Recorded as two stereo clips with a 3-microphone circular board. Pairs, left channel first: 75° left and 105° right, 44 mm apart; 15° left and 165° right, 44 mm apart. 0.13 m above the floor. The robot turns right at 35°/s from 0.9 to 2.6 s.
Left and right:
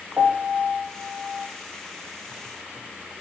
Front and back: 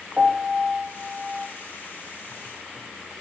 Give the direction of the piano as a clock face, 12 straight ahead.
3 o'clock.